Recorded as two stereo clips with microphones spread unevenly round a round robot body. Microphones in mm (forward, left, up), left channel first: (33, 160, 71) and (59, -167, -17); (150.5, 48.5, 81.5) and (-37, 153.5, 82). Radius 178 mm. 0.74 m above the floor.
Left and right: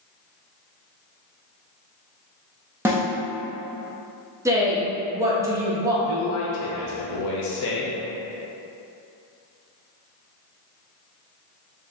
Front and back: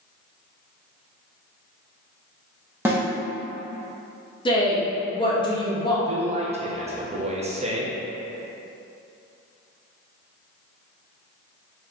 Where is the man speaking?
105° left, 0.7 m.